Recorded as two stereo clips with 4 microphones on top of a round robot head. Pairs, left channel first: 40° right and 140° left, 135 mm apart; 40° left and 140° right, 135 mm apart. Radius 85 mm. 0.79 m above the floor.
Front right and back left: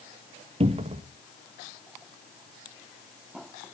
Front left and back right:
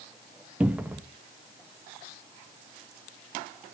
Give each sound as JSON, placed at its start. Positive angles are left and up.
{"t": 0.6, "sound": "a cupboard door", "azimuth_deg": 145, "distance_m": 1.0}